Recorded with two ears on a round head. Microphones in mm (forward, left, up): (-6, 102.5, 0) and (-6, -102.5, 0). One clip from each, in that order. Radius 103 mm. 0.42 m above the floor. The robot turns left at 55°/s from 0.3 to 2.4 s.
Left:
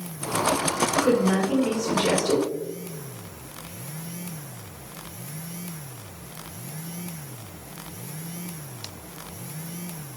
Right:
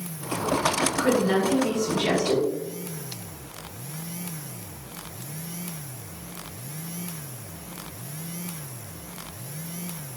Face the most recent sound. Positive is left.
turn(degrees=145)